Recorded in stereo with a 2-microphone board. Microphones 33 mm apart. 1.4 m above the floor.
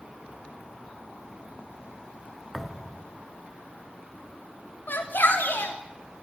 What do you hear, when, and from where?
2.5 s a thud: centre (ahead or behind), 1.5 m
4.9 s a shout: 75° left (ahead or behind), 4 m